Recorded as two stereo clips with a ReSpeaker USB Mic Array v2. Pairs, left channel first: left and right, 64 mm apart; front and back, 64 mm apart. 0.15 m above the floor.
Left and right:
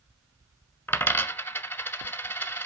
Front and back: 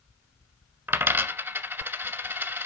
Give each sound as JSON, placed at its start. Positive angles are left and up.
{"t": 0.9, "sound": "a dropped coin", "azimuth_deg": 135, "distance_m": 0.6}